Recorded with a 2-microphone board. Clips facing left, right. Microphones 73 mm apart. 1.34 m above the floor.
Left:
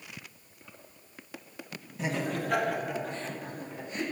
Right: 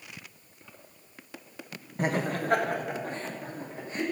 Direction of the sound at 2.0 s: 50° right (ahead or behind).